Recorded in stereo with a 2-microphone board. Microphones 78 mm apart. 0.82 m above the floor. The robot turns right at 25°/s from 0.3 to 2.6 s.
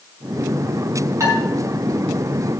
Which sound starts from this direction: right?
Dishes clattering, at 1.2 s.